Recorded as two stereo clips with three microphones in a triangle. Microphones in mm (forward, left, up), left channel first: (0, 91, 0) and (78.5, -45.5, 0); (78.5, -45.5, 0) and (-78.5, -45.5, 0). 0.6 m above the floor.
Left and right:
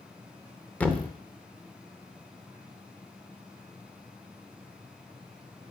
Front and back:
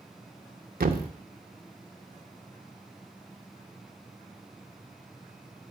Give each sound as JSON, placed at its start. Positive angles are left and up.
{"t": 0.8, "sound": "a thud", "azimuth_deg": -160, "distance_m": 0.6}